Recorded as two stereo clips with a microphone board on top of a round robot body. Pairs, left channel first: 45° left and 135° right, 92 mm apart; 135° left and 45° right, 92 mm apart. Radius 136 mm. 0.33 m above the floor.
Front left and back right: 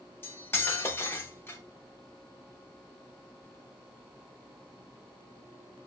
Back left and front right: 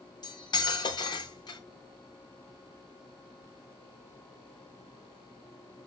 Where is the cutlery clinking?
105° left, 1.1 m.